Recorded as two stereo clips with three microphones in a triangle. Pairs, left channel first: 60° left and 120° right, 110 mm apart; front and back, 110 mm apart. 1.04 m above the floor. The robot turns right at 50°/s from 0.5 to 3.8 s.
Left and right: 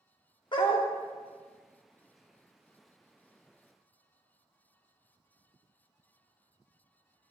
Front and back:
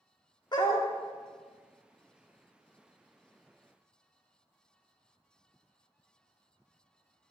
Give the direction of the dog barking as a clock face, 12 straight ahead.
11 o'clock.